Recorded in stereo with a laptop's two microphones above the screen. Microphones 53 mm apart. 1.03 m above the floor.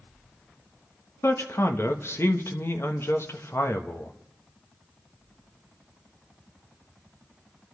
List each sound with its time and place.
1.2 s a man speaking: 50° left (ahead or behind), 1.3 m